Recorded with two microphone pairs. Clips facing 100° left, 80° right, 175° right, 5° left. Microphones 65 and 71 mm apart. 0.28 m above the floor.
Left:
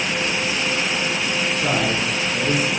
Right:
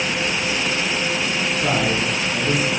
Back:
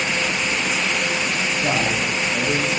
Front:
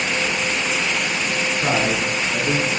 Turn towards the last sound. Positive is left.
turn(degrees=5)